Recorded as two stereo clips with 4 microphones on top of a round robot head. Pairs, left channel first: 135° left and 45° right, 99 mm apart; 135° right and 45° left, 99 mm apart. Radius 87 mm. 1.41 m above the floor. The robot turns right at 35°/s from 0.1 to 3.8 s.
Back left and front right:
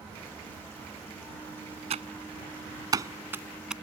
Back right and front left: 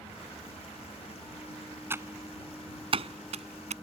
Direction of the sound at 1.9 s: 25° right.